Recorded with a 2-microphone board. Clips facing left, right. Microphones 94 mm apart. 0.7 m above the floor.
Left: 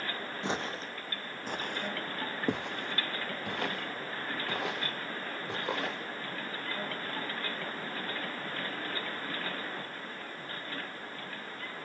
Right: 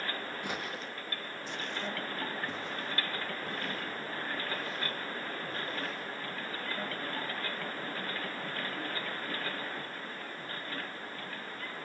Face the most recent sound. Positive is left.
turn(degrees=80)